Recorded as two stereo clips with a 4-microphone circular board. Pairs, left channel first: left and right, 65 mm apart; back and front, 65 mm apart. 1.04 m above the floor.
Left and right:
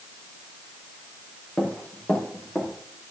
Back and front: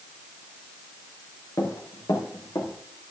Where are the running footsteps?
155° left, 5 m; by 2.7 s 160° left, 6 m.